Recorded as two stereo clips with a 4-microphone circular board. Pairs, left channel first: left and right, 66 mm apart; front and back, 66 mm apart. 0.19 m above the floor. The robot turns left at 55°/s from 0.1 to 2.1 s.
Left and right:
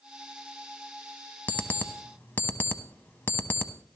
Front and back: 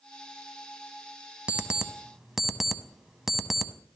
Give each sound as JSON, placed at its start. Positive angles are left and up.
{"t": 1.5, "sound": "an alarm clock", "azimuth_deg": 135, "distance_m": 0.7}